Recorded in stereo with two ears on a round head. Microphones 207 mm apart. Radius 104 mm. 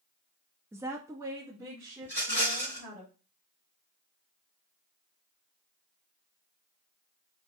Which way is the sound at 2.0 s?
10° left (ahead or behind).